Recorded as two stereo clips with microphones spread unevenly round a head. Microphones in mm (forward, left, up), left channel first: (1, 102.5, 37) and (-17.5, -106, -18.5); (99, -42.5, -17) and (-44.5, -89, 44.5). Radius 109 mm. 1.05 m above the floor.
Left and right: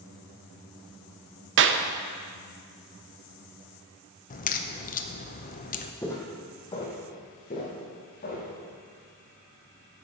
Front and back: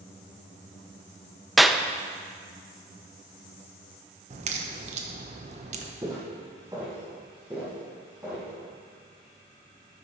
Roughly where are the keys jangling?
No keys jangling in this recording.